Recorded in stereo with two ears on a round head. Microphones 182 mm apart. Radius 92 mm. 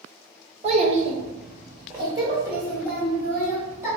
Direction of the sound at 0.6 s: 30° right (ahead or behind).